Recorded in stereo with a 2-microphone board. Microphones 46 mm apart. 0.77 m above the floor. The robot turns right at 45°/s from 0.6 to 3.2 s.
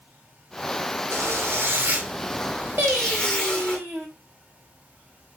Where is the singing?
50° right (ahead or behind), 1.9 m; by 4.1 s 65° right (ahead or behind), 1.9 m.